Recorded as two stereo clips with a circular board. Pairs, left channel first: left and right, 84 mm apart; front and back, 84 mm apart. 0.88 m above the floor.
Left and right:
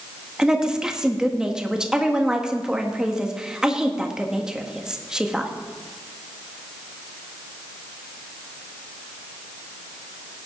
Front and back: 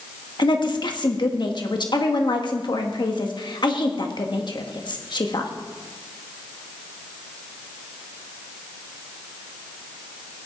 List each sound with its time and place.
0.4 s a woman speaking: 10° right, 1.5 m